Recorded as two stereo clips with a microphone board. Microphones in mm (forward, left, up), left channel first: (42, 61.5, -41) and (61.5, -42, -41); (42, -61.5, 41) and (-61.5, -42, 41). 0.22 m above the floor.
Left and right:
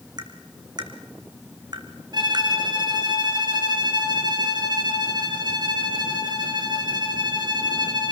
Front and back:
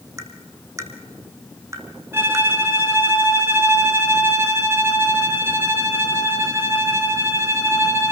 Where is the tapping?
130° right, 2.5 m.